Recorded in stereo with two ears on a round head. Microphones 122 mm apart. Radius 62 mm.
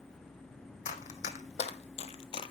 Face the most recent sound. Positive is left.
turn(degrees=35)  # may be behind; listen again after turning